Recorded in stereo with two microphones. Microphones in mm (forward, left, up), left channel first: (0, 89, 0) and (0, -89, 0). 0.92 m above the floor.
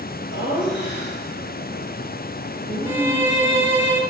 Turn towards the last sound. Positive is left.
turn(degrees=-15)  # may be behind; listen again after turning